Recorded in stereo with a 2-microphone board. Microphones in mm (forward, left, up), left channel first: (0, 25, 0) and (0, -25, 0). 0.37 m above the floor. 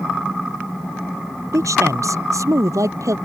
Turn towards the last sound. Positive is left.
turn(degrees=-85)